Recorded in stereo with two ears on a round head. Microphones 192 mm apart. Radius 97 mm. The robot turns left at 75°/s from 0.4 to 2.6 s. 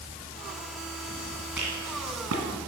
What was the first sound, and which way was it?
A rattle, 5° right (ahead or behind).